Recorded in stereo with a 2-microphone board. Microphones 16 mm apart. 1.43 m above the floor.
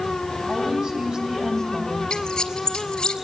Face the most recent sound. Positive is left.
turn(degrees=75)  # may be behind; listen again after turning